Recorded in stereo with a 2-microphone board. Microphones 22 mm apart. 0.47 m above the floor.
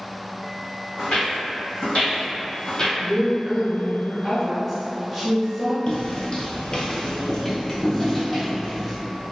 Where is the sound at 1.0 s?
75° left (ahead or behind), 1.6 m; by 2.9 s 35° left (ahead or behind), 0.7 m.